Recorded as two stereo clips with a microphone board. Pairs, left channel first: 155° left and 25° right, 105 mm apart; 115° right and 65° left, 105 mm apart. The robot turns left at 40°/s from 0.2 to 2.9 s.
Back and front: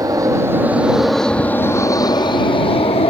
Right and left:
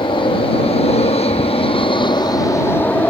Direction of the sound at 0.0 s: 75° right.